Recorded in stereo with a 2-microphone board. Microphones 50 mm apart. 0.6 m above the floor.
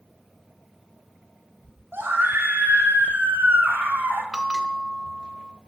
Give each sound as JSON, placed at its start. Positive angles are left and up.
{"t": 1.9, "sound": "a scream", "side_deg": -50, "distance_m": 1.4}
{"t": 4.3, "sound": "a bell", "side_deg": -15, "distance_m": 0.6}